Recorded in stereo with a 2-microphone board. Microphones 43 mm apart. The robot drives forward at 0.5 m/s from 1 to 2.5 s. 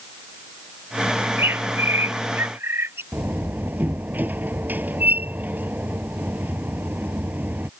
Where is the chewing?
No chewing in this recording.